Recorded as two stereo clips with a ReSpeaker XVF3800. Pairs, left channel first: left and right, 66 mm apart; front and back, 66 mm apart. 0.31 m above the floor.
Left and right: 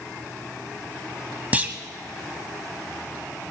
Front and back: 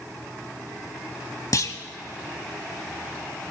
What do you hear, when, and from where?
1.5 s a clunk: 25° right, 1.0 m